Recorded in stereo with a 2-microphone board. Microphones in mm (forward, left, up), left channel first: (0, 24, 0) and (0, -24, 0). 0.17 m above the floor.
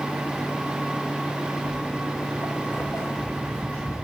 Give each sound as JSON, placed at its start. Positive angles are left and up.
{"t": 1.7, "sound": "footsteps", "side_deg": 70, "distance_m": 1.0}